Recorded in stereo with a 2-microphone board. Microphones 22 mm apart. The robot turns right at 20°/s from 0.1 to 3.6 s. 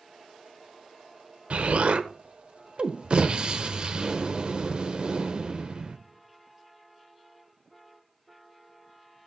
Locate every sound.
1.5 s an explosion: 90° right, 1.0 m; by 6.0 s 50° right, 1.0 m